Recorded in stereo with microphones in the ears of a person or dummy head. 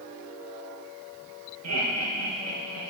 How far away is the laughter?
About 2.5 m.